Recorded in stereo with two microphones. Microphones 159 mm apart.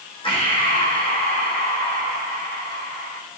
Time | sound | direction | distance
0.2 | breathing | 35° left (ahead or behind) | 4.5 m